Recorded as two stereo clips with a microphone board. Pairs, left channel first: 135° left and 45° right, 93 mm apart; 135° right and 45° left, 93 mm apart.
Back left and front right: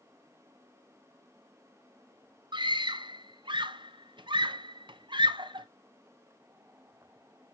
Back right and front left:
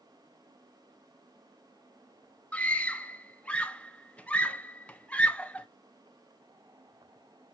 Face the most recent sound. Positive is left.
turn(degrees=-60)